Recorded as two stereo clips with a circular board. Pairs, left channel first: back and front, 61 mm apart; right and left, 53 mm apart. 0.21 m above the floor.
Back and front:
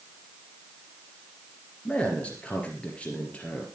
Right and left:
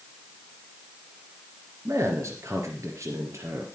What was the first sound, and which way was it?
A man speaking, 110° left.